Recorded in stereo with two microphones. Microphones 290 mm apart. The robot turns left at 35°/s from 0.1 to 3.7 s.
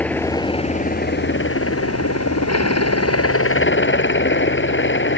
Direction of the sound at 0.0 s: 175° left.